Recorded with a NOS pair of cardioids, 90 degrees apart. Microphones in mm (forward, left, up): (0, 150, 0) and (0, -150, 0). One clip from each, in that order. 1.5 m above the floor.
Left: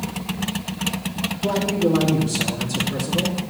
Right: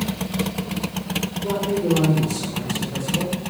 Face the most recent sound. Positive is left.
turn(degrees=60)